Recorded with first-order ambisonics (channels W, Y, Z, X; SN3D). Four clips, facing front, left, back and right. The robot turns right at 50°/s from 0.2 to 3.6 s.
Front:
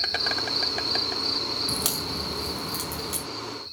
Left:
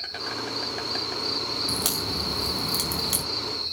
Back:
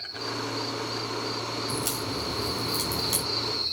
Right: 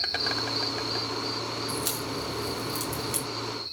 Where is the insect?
25° right, 0.9 m; by 3.7 s 145° left, 0.9 m.